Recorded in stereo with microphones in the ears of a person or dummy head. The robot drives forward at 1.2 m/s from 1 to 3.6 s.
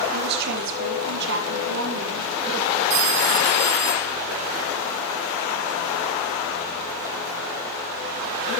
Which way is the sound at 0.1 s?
65° right (ahead or behind).